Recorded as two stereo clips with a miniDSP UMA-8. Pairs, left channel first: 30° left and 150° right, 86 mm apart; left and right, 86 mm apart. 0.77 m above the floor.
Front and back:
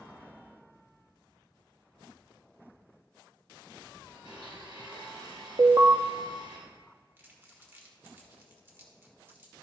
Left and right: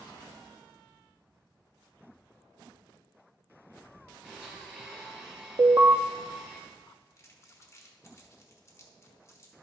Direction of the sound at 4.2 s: 170° right.